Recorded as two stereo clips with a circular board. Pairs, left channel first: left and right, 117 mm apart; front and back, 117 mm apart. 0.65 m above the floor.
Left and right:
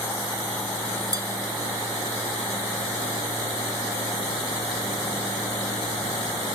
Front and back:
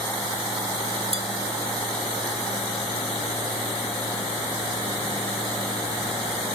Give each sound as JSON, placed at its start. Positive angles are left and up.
{"t": 1.1, "sound": "dishes clattering", "azimuth_deg": -150, "distance_m": 1.1}